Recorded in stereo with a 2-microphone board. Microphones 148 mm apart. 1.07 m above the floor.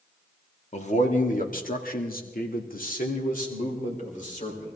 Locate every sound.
0.7 s a man speaking: 50° left (ahead or behind), 1.8 m; by 4.8 s 55° left (ahead or behind), 3.5 m